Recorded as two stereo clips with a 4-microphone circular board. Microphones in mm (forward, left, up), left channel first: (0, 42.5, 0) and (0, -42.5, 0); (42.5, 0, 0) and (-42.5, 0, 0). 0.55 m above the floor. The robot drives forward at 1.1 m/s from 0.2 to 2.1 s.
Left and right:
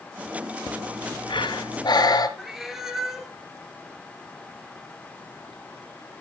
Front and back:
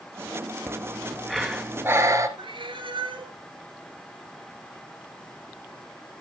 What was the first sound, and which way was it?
Breathing, 60° left.